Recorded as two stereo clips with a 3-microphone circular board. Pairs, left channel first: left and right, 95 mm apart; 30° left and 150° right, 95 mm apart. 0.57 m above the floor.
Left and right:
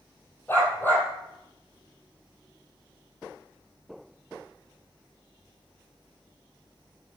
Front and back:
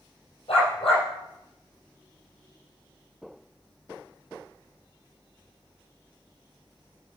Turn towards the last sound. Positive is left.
turn(degrees=20)